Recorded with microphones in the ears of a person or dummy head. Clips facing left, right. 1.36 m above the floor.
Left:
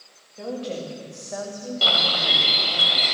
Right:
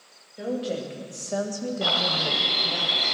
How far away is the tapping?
I don't hear tapping.